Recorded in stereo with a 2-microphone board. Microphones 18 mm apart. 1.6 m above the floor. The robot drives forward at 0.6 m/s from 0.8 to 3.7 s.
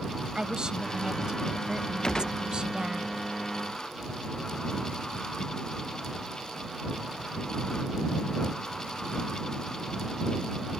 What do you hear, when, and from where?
0.3 s a woman speaking: 50° right (ahead or behind); by 3.0 s 55° right (ahead or behind)
2.0 s a gunshot: 45° left (ahead or behind); by 2.4 s 40° left (ahead or behind)